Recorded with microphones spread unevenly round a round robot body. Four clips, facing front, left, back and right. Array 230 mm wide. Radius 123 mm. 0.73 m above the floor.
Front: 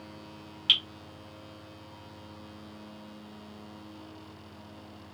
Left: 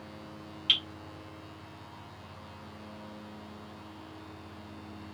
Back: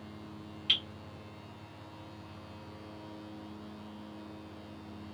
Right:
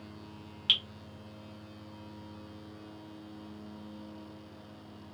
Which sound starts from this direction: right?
Dripping, at 0.7 s.